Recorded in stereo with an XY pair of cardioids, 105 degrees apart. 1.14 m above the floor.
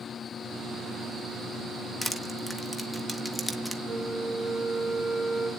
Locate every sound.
2.0 s crushing: 15° left, 1.3 m
3.9 s a flute: 35° left, 3 m